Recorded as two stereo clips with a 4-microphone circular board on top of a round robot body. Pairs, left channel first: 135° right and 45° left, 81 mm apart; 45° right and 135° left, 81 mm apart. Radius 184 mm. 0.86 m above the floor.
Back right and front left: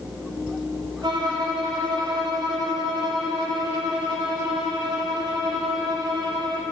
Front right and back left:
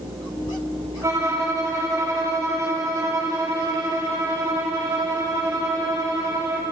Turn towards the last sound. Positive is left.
turn(degrees=80)